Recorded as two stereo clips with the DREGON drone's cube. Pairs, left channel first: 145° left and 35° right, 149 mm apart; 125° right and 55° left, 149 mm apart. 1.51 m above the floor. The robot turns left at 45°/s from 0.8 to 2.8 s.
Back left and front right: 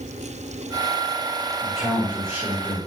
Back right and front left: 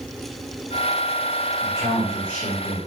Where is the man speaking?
75° right, 1.2 m; by 2.8 s 130° right, 1.2 m.